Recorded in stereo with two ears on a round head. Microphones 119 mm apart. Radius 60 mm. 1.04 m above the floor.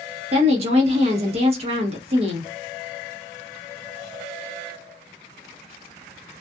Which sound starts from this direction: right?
A woman speaking, at 0.3 s.